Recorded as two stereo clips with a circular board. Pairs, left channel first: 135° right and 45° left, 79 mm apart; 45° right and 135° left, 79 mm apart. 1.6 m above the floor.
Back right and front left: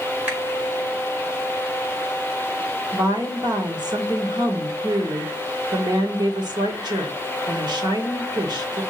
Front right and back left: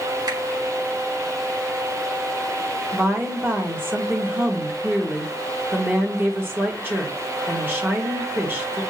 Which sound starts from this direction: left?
A woman speaking, at 2.9 s.